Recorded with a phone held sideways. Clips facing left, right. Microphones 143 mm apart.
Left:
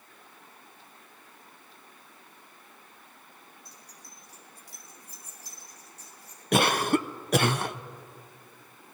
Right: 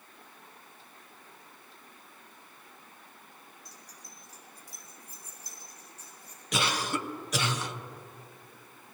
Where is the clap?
No clap in this recording.